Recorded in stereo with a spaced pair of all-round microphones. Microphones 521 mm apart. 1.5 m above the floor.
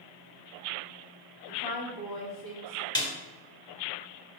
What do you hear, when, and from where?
1.5 s a woman speaking: 45° left (ahead or behind), 2 m
3.0 s a snare drum: 10° left (ahead or behind), 1.7 m